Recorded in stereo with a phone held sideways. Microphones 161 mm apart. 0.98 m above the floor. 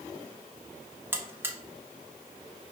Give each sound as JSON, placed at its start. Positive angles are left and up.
{"t": 1.1, "sound": "a buzzer", "side_deg": -15, "distance_m": 0.5}